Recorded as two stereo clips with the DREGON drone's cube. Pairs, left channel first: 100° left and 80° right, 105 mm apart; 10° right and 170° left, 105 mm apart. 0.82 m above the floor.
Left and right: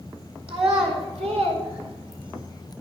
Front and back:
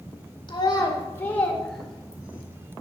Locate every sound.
0.5 s a child speaking: 55° right, 2 m; by 2.5 s 115° right, 2.5 m